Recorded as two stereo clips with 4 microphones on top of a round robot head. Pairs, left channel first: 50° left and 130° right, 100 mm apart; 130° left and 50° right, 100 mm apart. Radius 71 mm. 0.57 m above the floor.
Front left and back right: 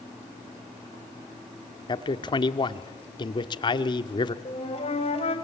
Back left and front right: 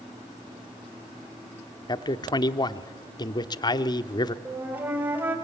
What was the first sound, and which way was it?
A man speaking, 90° left.